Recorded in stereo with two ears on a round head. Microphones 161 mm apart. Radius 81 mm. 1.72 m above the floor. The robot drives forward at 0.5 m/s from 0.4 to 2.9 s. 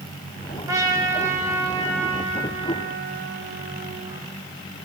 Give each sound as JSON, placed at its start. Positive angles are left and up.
{"t": 0.7, "sound": "a trumpet", "side_deg": -20, "distance_m": 1.9}